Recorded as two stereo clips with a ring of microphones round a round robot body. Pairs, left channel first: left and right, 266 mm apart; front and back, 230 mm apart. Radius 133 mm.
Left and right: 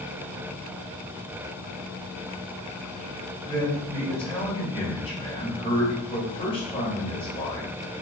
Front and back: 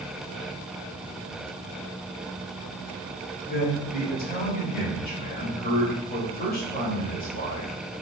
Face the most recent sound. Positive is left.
turn(degrees=30)